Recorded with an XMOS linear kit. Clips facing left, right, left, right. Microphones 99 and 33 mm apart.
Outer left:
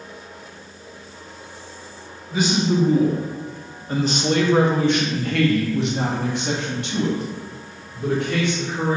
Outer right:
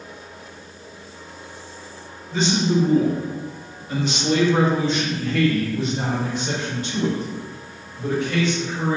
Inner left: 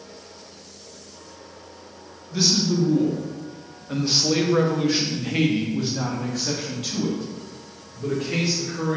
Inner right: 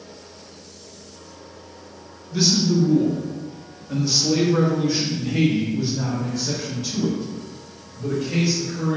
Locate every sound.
2.3 s a man speaking: 5° left (ahead or behind), 1.6 m; by 9.0 s 65° left (ahead or behind), 3 m